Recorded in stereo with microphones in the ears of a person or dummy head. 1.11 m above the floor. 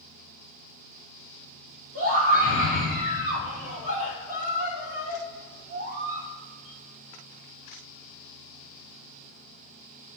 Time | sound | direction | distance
1.9 | a scream | 50° right (ahead or behind) | 3.5 m